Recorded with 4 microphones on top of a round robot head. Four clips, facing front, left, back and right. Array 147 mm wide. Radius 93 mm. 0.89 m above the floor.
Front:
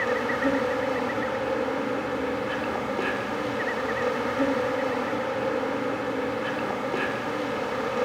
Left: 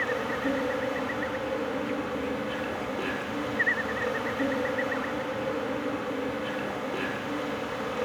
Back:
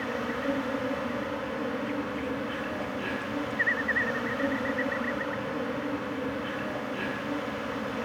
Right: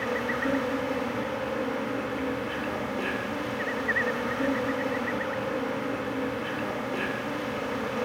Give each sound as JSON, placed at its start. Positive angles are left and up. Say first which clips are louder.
{"t": 0.0, "sound": "an insect", "louder": "right 1 dB, front 6 dB", "azimuth_deg": 5, "distance_m": 2.5}